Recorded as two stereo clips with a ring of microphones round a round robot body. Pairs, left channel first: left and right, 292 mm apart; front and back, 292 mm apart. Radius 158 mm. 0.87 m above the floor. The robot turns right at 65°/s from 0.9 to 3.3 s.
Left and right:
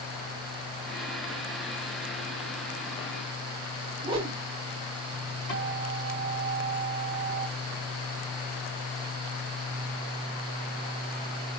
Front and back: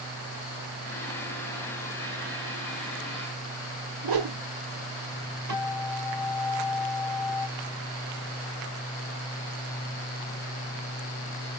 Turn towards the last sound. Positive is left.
turn(degrees=160)